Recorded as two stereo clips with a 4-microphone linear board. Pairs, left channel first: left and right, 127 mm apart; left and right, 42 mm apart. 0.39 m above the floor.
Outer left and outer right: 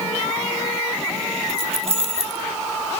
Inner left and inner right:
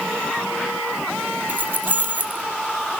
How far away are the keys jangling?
About 1.2 m.